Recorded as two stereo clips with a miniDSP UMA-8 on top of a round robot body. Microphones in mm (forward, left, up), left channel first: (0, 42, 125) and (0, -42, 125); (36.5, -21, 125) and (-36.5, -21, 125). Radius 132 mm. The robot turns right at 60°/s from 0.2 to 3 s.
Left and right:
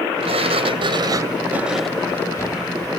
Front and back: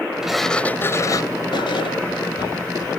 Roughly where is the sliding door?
Right.